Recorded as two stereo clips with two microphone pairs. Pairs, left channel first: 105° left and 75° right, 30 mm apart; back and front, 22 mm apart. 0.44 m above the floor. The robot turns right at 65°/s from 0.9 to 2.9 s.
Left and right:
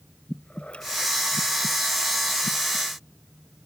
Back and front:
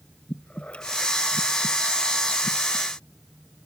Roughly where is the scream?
No scream in this recording.